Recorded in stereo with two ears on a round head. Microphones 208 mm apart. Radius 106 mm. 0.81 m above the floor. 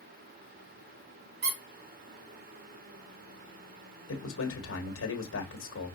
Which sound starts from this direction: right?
A squeak, at 1.4 s.